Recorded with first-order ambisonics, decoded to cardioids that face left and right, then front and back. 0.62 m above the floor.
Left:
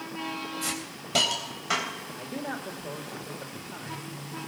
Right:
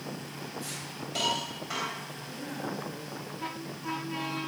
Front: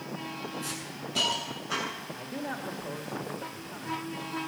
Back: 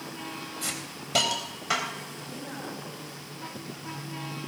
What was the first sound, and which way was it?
A hiss, 145° left.